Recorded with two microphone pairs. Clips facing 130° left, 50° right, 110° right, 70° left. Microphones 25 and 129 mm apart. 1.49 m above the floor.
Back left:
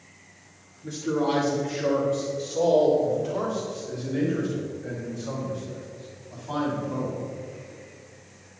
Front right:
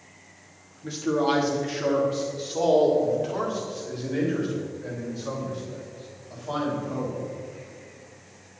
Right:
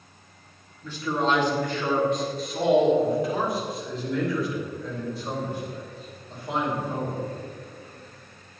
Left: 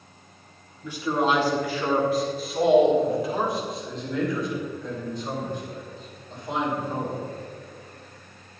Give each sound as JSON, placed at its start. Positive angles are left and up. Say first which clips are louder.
{"t": 0.8, "sound": "a man speaking", "louder": "front right 2 dB, left 2 dB", "azimuth_deg": -10, "distance_m": 2.5}